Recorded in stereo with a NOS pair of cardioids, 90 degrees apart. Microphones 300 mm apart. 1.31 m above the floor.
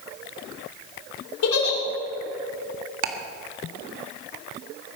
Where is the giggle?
65° left, 5 m.